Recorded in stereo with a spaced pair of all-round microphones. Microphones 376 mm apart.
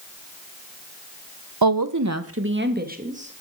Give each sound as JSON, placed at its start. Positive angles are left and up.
{"t": 1.6, "sound": "a woman speaking", "side_deg": -70, "distance_m": 1.1}